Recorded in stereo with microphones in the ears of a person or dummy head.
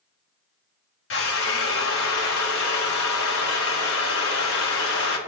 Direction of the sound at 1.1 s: 75° left (ahead or behind).